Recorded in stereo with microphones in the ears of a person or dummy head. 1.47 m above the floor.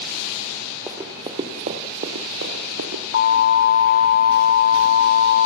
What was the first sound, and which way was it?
Running footsteps, 15° right (ahead or behind).